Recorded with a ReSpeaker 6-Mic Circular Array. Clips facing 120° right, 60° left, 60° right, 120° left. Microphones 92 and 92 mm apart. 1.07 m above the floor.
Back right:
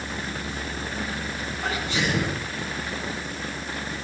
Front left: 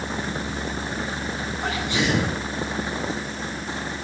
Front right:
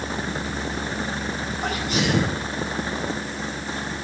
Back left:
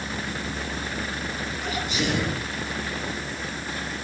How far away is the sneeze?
About 8 m.